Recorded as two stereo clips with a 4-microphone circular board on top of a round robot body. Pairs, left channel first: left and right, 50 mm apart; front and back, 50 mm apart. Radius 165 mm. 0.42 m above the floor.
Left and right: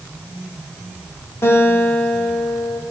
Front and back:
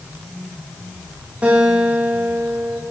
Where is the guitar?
120° left, 7 m.